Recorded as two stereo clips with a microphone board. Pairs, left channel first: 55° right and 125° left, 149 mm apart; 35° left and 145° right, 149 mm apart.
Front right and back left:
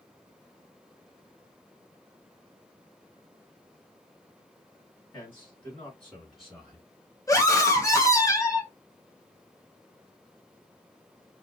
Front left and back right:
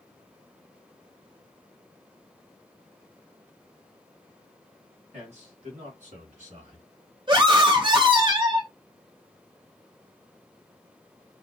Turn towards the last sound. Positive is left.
turn(degrees=-110)